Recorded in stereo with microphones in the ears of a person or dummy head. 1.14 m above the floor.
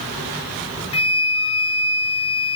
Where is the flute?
30° left (ahead or behind), 1.5 m.